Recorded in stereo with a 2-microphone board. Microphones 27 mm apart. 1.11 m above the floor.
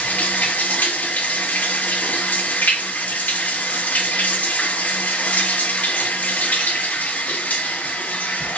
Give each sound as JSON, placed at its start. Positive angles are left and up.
{"t": 0.0, "sound": "running water", "side_deg": 85, "distance_m": 1.2}